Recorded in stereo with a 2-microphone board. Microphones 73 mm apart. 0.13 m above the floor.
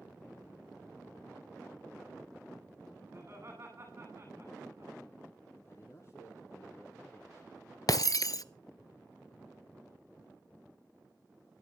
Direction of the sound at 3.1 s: 35° right (ahead or behind).